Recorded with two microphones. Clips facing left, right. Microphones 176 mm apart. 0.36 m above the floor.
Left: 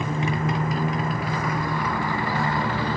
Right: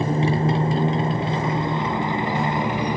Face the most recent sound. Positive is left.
turn(degrees=-15)  # may be behind; listen again after turning